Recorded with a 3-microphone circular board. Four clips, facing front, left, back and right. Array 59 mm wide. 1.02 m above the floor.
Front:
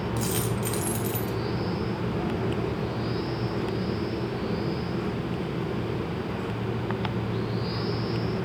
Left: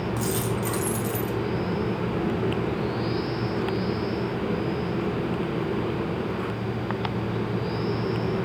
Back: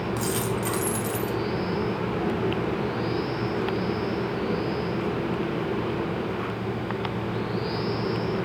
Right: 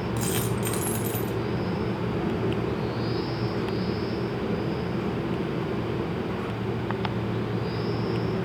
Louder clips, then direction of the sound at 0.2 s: Even, back 2 dB; 80° right.